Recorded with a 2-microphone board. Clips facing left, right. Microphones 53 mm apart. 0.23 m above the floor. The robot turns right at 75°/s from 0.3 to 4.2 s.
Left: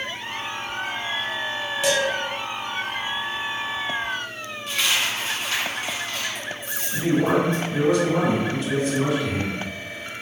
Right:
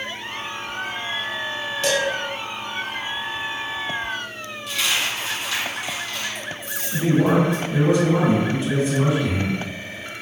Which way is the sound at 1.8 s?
10° left (ahead or behind).